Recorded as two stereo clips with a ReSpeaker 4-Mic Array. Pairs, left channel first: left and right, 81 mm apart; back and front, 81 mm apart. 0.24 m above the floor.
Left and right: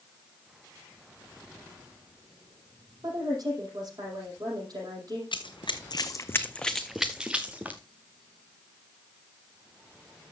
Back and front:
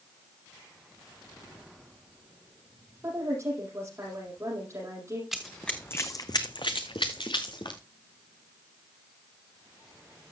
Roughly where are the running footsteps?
Left.